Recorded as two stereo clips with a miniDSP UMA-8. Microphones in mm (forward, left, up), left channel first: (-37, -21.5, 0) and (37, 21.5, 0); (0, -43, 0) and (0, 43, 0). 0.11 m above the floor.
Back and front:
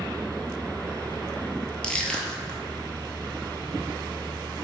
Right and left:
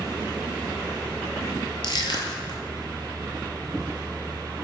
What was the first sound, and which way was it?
Crushing, 70° right.